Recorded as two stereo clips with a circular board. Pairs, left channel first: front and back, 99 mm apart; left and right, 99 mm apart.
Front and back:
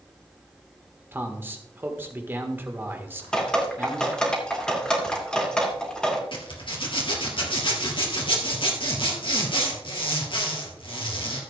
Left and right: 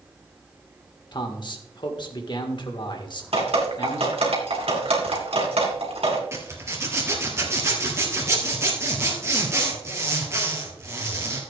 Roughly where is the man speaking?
Behind left.